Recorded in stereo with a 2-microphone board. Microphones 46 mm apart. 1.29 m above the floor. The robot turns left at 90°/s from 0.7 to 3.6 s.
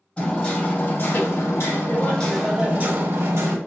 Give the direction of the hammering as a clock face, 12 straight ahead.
7 o'clock.